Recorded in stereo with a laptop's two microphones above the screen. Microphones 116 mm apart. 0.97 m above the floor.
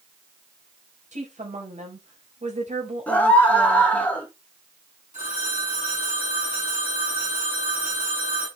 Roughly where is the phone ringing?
Right.